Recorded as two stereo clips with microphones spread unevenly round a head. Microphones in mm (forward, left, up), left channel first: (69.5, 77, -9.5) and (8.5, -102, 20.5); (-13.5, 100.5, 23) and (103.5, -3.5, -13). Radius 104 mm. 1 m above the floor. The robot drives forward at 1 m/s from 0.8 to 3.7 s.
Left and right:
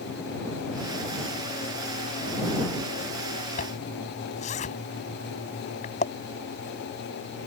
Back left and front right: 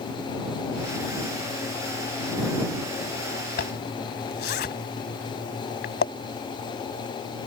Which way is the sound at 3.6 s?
130° left.